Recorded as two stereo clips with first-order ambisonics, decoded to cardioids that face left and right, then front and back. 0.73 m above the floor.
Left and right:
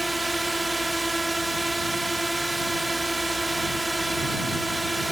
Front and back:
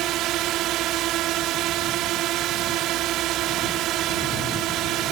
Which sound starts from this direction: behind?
A drone, at 0.0 s.